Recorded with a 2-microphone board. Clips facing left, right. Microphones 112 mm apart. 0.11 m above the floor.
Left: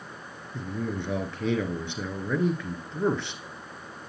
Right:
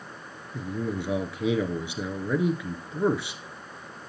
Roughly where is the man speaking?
Centre.